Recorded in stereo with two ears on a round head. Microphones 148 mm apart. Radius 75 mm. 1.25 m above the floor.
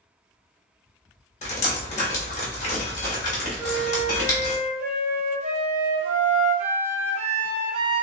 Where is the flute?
50° right (ahead or behind), 0.7 m.